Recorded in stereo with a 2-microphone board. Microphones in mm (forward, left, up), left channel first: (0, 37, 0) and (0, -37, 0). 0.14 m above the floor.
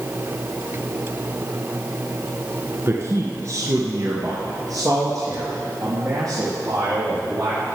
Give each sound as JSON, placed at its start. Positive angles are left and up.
{"t": 2.9, "sound": "a man speaking", "side_deg": -35, "distance_m": 1.4}